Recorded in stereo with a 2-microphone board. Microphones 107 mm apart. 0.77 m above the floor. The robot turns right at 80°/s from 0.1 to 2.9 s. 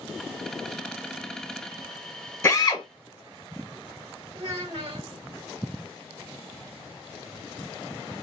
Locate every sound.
2.4 s a drill: 25° left, 1.0 m; by 2.9 s 60° left, 1.0 m
4.3 s a child speaking: 70° right (ahead or behind), 1.5 m